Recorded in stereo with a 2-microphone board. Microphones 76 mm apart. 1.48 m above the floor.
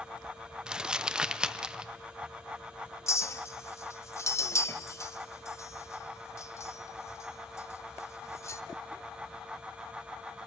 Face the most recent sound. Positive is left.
turn(degrees=40)  # may be behind; listen again after turning